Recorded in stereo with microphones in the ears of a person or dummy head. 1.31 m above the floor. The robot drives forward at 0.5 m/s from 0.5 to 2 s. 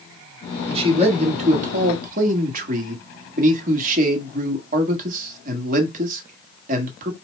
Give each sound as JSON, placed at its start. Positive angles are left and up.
{"t": 0.7, "sound": "a man speaking", "side_deg": -35, "distance_m": 1.7}